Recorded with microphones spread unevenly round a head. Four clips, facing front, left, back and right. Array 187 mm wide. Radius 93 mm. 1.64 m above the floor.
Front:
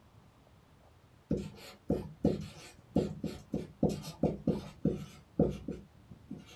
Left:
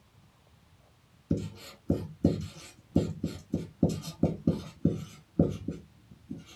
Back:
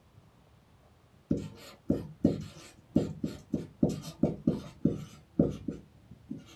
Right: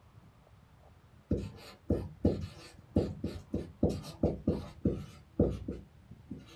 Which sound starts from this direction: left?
Writing, at 1.3 s.